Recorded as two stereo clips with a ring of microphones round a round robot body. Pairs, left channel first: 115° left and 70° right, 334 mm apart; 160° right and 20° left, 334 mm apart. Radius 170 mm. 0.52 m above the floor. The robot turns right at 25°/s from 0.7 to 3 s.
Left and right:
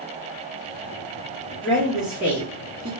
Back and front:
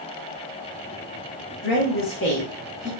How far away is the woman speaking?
About 0.9 m.